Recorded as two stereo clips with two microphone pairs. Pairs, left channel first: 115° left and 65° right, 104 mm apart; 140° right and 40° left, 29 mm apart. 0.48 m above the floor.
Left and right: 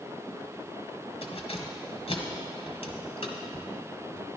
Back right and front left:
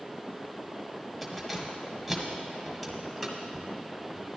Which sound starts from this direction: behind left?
Keys jangling, at 1.2 s.